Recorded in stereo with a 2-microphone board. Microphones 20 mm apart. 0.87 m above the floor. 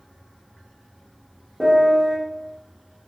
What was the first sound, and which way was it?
A piano, 45° right (ahead or behind).